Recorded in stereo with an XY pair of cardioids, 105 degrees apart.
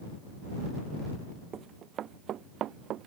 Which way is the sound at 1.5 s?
55° right.